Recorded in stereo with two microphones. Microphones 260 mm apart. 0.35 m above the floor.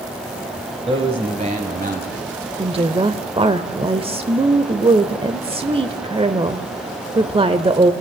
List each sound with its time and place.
0.9 s a man speaking: 20° right (ahead or behind), 1.7 m; by 2.2 s 40° right (ahead or behind), 2 m
2.6 s a woman speaking: 20° right (ahead or behind), 0.8 m